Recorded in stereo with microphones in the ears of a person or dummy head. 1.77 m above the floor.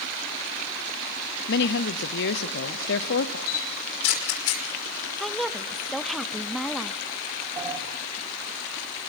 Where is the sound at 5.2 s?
Centre (ahead or behind), 0.6 m.